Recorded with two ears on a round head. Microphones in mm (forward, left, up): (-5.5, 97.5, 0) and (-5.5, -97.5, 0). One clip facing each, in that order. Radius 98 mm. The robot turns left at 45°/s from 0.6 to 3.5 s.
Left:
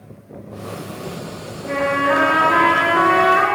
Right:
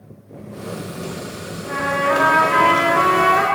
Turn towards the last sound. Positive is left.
turn(degrees=115)